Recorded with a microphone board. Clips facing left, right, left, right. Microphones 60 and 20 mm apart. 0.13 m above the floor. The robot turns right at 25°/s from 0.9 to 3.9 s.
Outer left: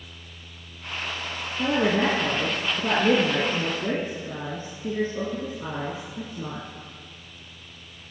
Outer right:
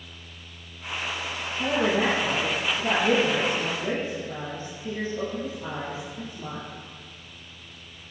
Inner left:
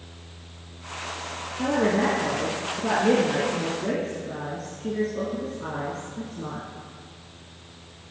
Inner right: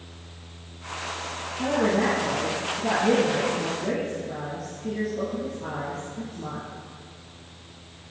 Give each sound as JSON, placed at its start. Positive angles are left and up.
{"t": 1.6, "sound": "a woman speaking", "azimuth_deg": 70, "distance_m": 3.5}